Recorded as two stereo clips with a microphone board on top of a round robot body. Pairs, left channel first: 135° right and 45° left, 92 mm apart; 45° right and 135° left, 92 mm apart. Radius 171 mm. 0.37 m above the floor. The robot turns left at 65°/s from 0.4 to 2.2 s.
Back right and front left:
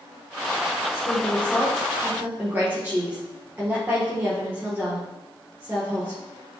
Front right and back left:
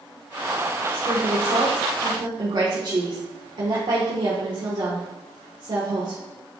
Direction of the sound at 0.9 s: 165° right.